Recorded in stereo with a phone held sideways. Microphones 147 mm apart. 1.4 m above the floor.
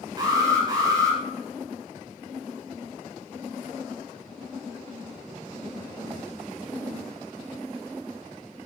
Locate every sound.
0.2 s an alarm: 30° right (ahead or behind), 6.5 m